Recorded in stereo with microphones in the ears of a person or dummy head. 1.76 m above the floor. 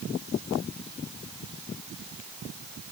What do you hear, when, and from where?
Only background noise.